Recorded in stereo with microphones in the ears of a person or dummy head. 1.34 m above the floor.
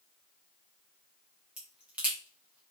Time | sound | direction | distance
1.6 | a crack | 15° right (ahead or behind) | 1.1 m